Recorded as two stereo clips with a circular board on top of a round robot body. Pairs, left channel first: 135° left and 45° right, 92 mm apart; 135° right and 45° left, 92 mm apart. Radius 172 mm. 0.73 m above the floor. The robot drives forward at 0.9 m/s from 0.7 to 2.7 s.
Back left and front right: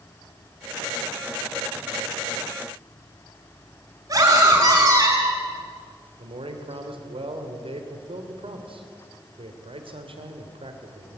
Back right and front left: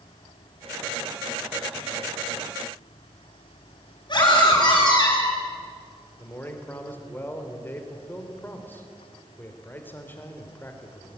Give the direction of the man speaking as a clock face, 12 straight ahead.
2 o'clock.